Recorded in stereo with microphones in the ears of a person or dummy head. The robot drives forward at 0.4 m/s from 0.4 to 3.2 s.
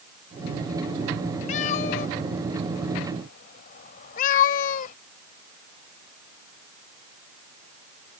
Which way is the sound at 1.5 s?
40° left (ahead or behind).